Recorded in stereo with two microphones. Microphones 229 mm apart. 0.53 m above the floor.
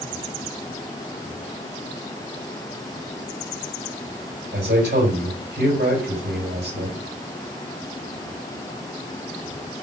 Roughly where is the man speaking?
Right.